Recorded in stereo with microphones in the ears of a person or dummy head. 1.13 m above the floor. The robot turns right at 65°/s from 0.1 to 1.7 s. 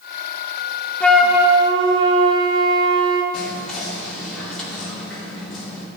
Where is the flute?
170° left, 0.7 m; by 3.2 s 145° right, 0.7 m.